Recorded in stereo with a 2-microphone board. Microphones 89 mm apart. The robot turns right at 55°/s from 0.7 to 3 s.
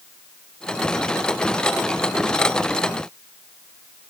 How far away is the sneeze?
I don't hear a sneeze.